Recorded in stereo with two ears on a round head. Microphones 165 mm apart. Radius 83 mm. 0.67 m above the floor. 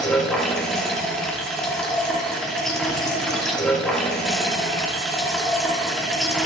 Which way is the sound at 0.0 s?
5° left (ahead or behind).